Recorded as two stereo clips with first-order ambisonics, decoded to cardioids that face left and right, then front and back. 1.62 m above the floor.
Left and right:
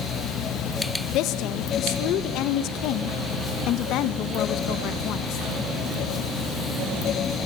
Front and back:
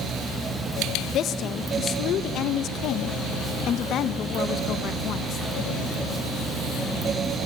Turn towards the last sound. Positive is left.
turn(degrees=50)